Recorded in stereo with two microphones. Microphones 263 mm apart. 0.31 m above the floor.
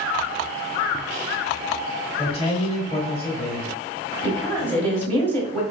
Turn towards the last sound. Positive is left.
turn(degrees=10)  # may be behind; listen again after turning